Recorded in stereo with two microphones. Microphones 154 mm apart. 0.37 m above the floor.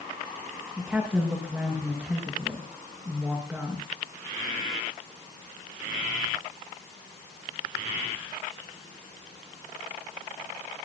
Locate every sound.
0.8 s a woman speaking: 10° right (ahead or behind), 6 m